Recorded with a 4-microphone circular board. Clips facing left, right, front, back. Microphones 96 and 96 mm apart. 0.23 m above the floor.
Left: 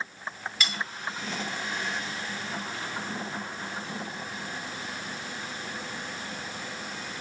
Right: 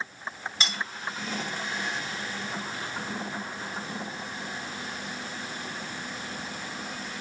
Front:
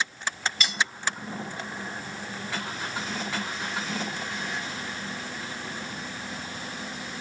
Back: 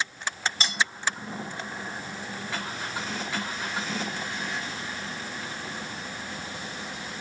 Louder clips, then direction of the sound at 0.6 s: Even, even; 135° right.